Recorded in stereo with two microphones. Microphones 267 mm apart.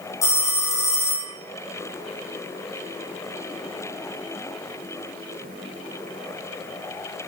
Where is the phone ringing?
10° left (ahead or behind), 2 m.